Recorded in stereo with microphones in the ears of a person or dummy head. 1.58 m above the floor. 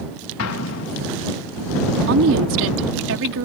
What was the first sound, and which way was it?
An explosion, 85° left.